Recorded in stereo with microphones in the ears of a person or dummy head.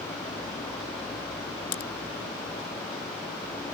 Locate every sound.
1.7 s a crack: 60° left (ahead or behind)